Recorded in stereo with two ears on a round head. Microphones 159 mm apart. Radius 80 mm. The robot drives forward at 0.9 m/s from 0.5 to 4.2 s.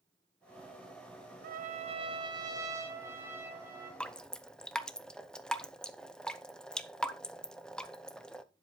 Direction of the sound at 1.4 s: 55° right (ahead or behind).